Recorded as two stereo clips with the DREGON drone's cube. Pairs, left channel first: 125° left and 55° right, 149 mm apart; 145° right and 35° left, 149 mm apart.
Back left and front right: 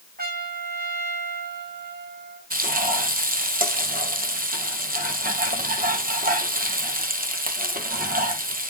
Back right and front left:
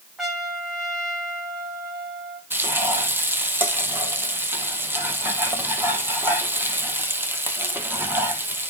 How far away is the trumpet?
About 1.8 m.